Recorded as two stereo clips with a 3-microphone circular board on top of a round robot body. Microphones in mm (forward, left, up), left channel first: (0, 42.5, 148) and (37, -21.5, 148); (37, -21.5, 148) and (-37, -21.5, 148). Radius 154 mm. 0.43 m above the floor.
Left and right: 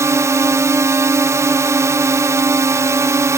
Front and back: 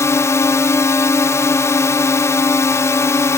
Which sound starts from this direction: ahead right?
A drone, at 0.0 s.